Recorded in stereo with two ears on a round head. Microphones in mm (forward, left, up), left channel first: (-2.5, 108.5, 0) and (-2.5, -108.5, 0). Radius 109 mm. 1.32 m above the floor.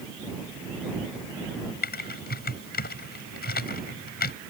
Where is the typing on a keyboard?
45° left (ahead or behind).